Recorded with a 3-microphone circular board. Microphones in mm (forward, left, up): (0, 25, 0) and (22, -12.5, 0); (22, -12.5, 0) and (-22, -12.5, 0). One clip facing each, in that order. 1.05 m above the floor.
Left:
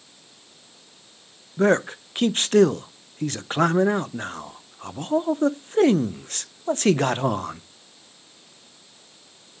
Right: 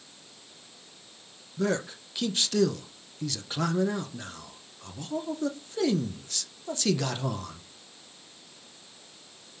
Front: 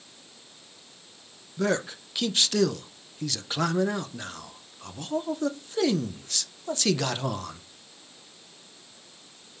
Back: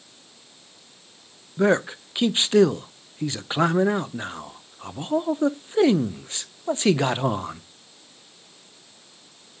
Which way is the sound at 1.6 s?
130° left.